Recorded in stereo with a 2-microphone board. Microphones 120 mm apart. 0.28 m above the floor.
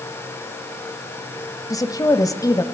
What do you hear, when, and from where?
1.7 s a woman speaking: 30° left (ahead or behind), 1.1 m